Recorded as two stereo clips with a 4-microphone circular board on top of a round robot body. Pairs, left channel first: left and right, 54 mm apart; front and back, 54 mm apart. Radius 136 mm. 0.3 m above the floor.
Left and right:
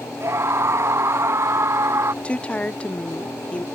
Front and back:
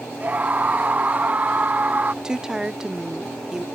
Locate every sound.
0.2 s a scream: 120° right
2.2 s a woman speaking: 120° left